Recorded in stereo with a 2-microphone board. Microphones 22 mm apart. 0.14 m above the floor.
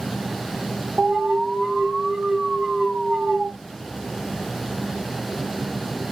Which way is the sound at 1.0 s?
40° right (ahead or behind).